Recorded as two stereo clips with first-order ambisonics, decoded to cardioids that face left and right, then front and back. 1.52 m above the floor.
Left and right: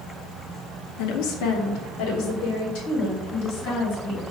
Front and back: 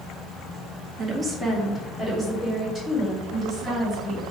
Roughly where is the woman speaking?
Behind left.